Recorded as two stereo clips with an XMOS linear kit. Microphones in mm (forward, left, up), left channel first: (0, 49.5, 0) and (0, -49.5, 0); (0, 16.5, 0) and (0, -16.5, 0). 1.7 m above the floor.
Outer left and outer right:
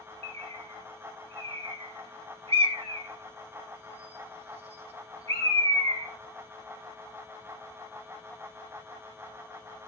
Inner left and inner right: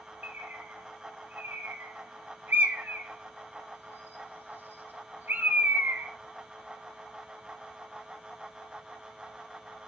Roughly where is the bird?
Right.